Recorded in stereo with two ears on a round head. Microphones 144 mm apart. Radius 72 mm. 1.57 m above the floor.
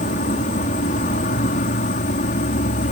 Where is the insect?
50° left (ahead or behind).